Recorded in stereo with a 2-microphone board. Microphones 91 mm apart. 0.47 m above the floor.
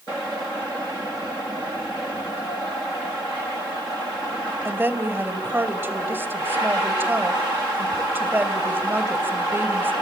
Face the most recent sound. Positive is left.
turn(degrees=-25)  # may be behind; listen again after turning